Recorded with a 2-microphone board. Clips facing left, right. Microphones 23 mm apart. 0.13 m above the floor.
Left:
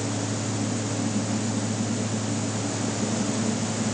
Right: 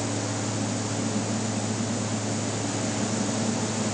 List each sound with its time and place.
Only background noise.